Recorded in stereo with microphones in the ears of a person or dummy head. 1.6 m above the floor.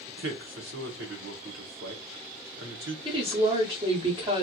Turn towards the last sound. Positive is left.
turn(degrees=-25)  # may be behind; listen again after turning